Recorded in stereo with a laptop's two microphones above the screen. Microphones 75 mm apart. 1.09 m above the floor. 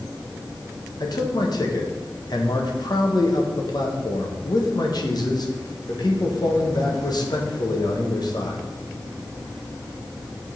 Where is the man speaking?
60° left (ahead or behind), 1.2 m.